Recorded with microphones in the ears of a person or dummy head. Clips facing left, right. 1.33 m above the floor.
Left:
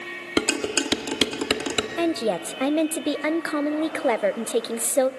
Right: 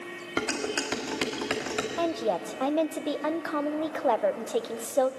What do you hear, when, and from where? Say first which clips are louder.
0.4 s dishes clattering: left 6 dB; 45° left (ahead or behind), 1.7 m
2.0 s a woman speaking: left 4 dB; 30° left (ahead or behind), 0.7 m